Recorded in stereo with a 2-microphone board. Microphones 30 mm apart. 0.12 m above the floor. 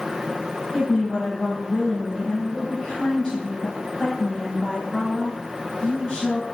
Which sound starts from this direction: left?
A woman speaking, at 0.7 s.